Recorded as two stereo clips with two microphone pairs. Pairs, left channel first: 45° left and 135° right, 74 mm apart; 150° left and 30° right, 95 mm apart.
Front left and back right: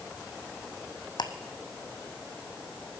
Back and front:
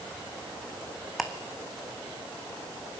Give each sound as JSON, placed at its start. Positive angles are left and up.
{"t": 1.2, "sound": "ticking", "azimuth_deg": 60, "distance_m": 1.1}